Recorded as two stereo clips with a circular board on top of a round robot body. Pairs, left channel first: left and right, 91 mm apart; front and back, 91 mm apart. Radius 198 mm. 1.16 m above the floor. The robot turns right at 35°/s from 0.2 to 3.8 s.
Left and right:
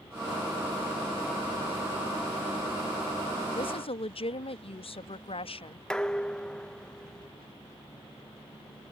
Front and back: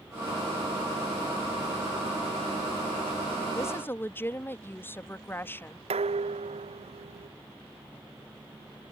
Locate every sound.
3.5 s a woman speaking: 60° left; by 5.8 s 70° left
5.9 s dishes clattering: 170° left